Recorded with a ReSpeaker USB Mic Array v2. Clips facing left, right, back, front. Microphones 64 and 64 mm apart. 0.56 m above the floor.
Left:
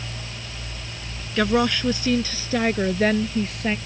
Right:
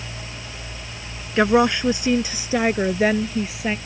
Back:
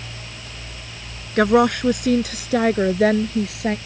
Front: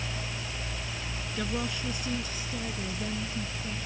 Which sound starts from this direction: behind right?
A woman speaking, at 1.4 s.